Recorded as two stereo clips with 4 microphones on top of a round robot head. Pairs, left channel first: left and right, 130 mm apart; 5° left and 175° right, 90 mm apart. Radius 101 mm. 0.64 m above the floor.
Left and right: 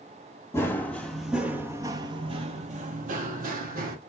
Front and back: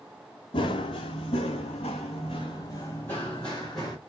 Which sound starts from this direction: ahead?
Running footsteps, at 0.5 s.